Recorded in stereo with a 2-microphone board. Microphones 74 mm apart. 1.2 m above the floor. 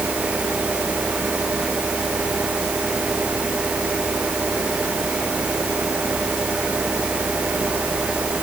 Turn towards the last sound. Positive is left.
No sound to turn to.